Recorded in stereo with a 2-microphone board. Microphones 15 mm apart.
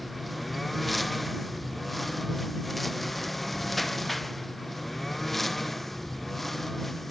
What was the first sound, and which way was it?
A lawn mower, 10° left (ahead or behind).